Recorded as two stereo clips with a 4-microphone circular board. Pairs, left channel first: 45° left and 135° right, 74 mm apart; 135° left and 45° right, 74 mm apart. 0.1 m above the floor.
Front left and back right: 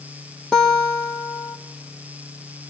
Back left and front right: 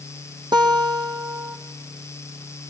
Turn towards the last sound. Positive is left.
turn(degrees=-35)